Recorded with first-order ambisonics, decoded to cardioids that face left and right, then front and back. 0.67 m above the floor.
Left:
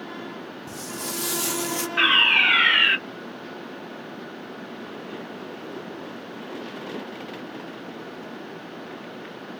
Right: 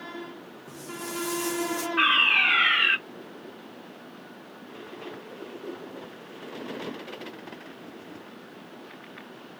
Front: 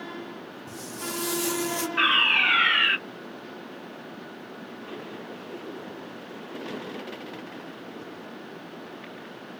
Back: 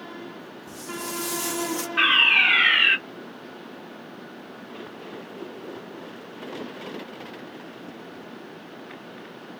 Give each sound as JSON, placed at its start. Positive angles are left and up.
{"t": 0.7, "sound": "footsteps", "azimuth_deg": 85, "distance_m": 1.5}
{"t": 2.0, "sound": "a fire alarm", "azimuth_deg": 110, "distance_m": 1.5}